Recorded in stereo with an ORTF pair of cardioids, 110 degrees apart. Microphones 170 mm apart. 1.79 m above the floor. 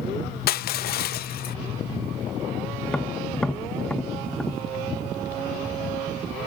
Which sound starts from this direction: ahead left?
Crushing, at 0.5 s.